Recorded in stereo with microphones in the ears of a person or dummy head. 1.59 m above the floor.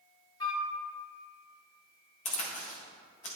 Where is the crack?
35° left (ahead or behind), 1.6 m.